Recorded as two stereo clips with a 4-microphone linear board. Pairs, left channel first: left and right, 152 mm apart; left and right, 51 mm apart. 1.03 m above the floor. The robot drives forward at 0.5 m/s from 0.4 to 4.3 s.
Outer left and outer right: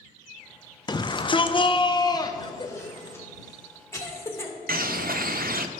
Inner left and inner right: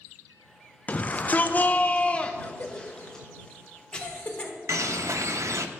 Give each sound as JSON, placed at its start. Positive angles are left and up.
{"t": 0.9, "sound": "a shout", "side_deg": 30, "distance_m": 0.6}
{"t": 2.4, "sound": "a cough", "side_deg": 30, "distance_m": 0.9}
{"t": 4.7, "sound": "a bird", "side_deg": -75, "distance_m": 0.5}